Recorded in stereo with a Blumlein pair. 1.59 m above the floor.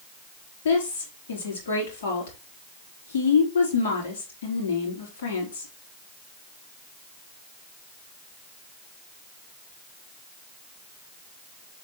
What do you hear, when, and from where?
0.7 s a woman speaking: 60° left, 4.5 m